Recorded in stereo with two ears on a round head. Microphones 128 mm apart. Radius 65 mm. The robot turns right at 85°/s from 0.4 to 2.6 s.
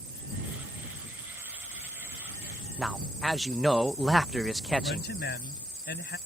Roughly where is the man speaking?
Centre.